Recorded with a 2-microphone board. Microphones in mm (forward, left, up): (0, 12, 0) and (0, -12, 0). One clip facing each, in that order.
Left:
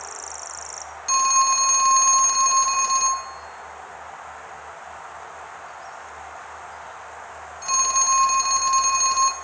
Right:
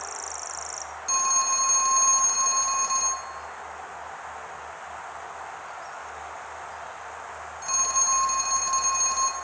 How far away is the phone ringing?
About 0.9 m.